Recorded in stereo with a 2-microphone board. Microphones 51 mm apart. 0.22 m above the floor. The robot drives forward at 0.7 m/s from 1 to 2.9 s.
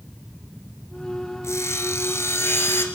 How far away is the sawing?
About 2 m.